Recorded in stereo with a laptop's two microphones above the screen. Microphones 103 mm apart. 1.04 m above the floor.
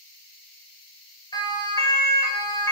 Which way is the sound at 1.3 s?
45° left (ahead or behind).